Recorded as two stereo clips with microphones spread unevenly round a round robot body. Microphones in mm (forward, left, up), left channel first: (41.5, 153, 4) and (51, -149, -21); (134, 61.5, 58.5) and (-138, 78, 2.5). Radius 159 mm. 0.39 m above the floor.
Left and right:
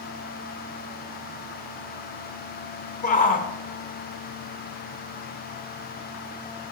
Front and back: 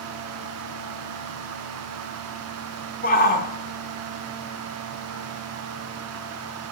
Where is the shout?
45° left, 0.8 m.